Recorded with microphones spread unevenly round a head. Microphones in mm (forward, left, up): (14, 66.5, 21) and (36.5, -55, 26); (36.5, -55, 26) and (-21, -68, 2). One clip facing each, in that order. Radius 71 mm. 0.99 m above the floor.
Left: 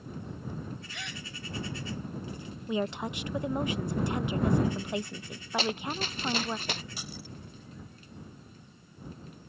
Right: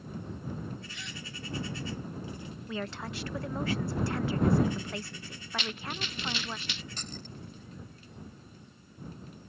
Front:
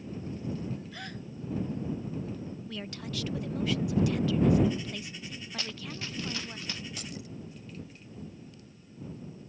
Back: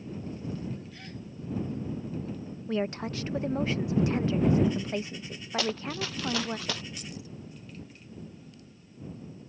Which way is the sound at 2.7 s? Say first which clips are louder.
Left 6 dB, back 13 dB; 170° left.